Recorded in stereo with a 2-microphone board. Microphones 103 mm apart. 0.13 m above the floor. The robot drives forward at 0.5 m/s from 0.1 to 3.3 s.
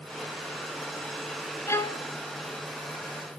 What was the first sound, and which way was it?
A violin, 25° left (ahead or behind).